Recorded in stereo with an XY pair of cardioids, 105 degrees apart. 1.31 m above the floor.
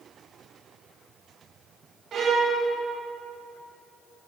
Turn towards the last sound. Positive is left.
turn(degrees=-55)